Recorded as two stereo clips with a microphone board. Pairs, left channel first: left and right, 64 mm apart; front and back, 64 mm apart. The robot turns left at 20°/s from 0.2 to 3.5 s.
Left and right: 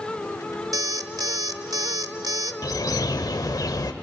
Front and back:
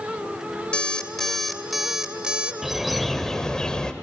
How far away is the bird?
About 0.8 m.